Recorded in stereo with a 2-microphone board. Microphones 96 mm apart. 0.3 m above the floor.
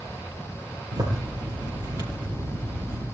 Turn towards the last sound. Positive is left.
turn(degrees=-40)  # may be behind; listen again after turning